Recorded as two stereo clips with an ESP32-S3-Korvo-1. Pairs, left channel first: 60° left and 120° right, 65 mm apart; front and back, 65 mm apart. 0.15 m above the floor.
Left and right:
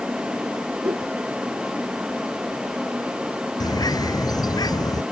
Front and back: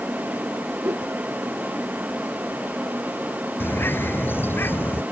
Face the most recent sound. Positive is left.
turn(degrees=55)